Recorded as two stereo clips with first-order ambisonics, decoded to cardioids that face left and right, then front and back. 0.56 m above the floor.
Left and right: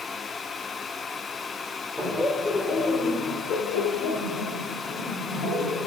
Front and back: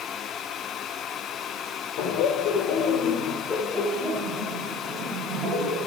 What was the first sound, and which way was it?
Laughter, 5° left.